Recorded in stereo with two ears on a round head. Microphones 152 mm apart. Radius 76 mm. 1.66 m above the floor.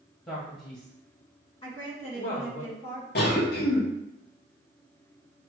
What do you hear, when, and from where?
0.3 s a man speaking: 20° left (ahead or behind), 1.0 m; by 2.6 s 65° left (ahead or behind), 1.9 m
1.6 s a woman speaking: 35° left (ahead or behind), 1.6 m
3.1 s a cough: 65° left (ahead or behind), 1.1 m